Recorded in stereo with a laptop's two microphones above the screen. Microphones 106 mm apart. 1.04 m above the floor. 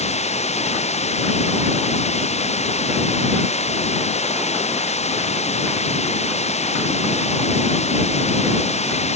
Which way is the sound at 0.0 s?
80° left.